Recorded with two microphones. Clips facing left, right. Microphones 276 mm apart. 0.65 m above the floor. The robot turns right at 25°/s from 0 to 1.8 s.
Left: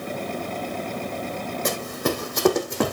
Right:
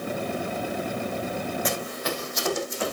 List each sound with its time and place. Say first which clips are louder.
1.6 s running footsteps: left 4 dB; 50° left (ahead or behind), 1.7 m; by 2.9 s 70° left (ahead or behind), 2 m